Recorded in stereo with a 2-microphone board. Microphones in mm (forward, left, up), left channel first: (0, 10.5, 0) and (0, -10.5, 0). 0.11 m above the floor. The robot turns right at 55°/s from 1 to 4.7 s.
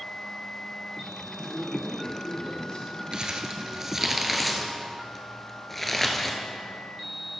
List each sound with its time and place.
1.4 s a man speaking: 50° left, 3 m; by 3.0 s 135° left, 3 m
3.1 s crumpling: 45° right (ahead or behind), 1.0 m; by 6.4 s 10° left (ahead or behind), 1.0 m